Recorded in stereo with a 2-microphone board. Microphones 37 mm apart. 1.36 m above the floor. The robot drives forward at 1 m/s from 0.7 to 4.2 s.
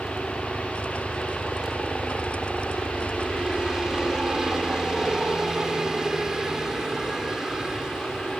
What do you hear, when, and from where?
0.0 s a helicopter: 20° right (ahead or behind); by 8.4 s 15° right (ahead or behind)